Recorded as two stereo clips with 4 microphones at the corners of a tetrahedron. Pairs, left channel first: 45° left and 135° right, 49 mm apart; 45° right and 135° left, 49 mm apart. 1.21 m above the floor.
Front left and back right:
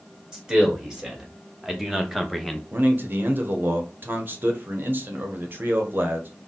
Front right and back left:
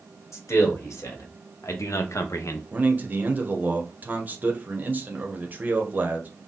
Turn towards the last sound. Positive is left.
turn(degrees=-175)